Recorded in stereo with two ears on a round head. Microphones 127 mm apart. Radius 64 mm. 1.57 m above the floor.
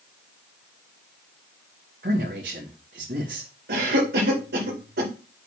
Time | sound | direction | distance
2.0 | a man speaking | 65° right (ahead or behind) | 2.5 m
3.7 | a cough | 85° right | 2 m